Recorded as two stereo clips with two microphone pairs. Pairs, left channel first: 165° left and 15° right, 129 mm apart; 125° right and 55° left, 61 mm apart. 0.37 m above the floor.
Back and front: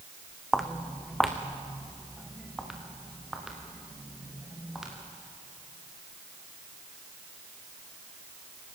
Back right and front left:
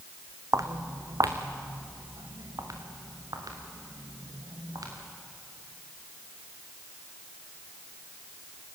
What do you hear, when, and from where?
0.5 s footsteps: 75° left, 1.5 m; by 4.9 s 70° left, 6 m